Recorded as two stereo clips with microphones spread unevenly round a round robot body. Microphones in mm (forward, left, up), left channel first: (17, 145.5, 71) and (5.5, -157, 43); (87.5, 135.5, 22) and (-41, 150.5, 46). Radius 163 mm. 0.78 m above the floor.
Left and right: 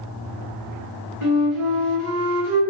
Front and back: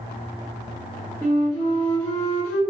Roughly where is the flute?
Behind right.